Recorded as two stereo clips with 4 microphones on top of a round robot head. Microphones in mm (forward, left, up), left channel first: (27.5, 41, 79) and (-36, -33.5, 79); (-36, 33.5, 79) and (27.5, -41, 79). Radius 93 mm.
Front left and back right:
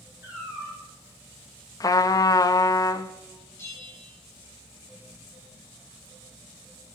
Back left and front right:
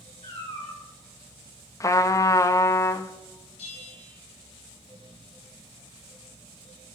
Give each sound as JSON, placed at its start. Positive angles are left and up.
{"t": 0.2, "sound": "a cat meowing", "azimuth_deg": 160, "distance_m": 5.0}
{"t": 1.8, "sound": "a trumpet", "azimuth_deg": 85, "distance_m": 0.5}
{"t": 3.6, "sound": "a bell", "azimuth_deg": 115, "distance_m": 1.9}